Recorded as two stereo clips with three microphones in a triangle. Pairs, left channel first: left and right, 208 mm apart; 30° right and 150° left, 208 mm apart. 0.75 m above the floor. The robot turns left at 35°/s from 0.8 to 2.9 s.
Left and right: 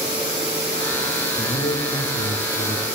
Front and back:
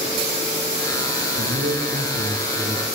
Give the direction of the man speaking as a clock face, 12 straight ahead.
7 o'clock.